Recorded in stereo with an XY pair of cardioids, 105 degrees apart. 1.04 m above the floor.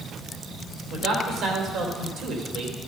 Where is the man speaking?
70° right, 3.5 m.